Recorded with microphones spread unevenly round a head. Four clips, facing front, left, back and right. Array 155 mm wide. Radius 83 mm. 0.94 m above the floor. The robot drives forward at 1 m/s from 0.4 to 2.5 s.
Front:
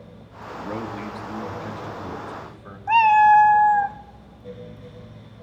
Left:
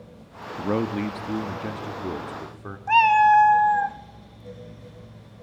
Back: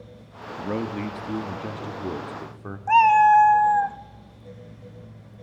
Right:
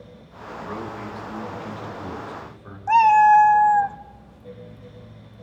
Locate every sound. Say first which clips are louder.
0.6 s a man speaking: left 8 dB, back 3 dB; 100° left, 1.5 m; by 2.8 s 150° left, 2.5 m
2.9 s a cat meowing: right 3 dB, front 1 dB; 120° right, 0.7 m